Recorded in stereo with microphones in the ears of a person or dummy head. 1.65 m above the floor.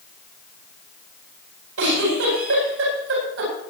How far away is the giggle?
About 8.5 m.